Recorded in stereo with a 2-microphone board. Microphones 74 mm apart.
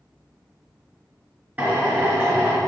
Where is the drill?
20° right (ahead or behind), 3 m.